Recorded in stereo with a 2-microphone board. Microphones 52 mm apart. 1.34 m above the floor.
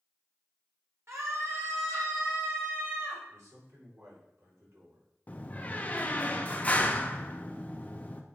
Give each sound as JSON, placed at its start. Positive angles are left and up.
{"t": 1.1, "sound": "a scream", "side_deg": -65, "distance_m": 2.0}
{"t": 3.3, "sound": "a man speaking", "side_deg": -75, "distance_m": 4.0}
{"t": 5.3, "sound": "a door slam", "side_deg": 30, "distance_m": 0.8}